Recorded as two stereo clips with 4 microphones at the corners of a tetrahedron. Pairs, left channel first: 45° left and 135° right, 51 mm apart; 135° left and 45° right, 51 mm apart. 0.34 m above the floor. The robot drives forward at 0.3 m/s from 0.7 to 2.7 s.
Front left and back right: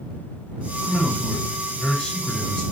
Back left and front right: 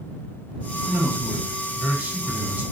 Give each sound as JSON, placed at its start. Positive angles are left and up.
{"t": 0.8, "sound": "a man speaking", "azimuth_deg": -15, "distance_m": 1.7}